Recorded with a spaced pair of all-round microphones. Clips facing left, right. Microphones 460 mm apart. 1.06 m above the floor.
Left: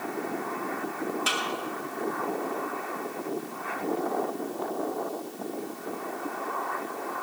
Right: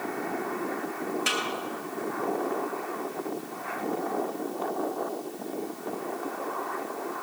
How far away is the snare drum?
About 2.5 m.